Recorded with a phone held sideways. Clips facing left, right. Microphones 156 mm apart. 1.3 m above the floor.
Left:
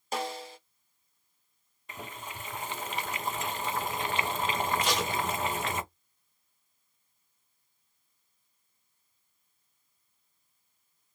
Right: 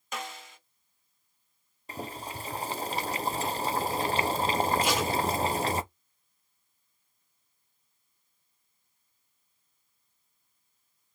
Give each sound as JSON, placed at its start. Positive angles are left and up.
{"t": 0.1, "sound": "a snare drum", "side_deg": 35, "distance_m": 0.7}
{"t": 1.9, "sound": "boiling", "side_deg": -35, "distance_m": 0.5}
{"t": 4.8, "sound": "tape being pulled", "side_deg": -10, "distance_m": 1.2}